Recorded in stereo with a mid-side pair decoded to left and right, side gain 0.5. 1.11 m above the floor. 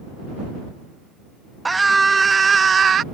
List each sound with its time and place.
1.6 s a scream: 15° right; by 3.0 s 45° right